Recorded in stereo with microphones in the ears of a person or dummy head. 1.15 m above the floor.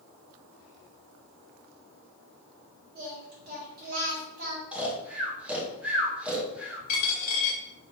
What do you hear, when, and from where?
3.0 s singing: 50° right (ahead or behind), 1.1 m
4.7 s snoring: 5° right (ahead or behind), 0.6 m
6.9 s a dropped coin: 55° left (ahead or behind), 1.0 m